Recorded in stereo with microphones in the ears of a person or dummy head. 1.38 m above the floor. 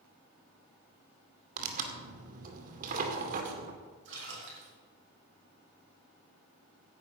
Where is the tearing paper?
55° right (ahead or behind), 2 m.